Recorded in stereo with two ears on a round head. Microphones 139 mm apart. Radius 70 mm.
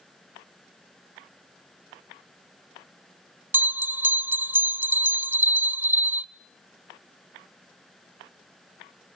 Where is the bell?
15° right (ahead or behind), 1.1 m.